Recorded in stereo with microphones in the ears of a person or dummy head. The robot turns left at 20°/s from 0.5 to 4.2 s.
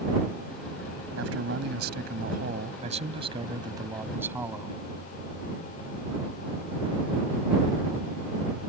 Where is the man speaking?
105° right; by 4.8 s 170° right.